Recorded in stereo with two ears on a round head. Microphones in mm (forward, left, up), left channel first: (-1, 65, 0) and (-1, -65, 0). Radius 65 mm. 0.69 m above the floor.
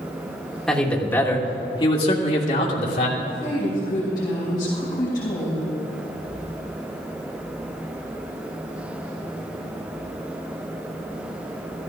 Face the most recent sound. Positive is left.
turn(degrees=30)  # may be behind; listen again after turning